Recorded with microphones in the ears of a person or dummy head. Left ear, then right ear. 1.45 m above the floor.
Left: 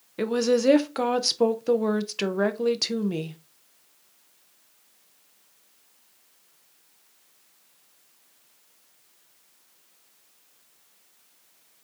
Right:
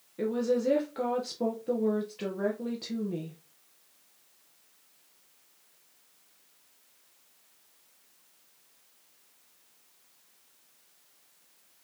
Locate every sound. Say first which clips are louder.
0.2 s a woman speaking: left 6 dB; 60° left (ahead or behind), 0.7 m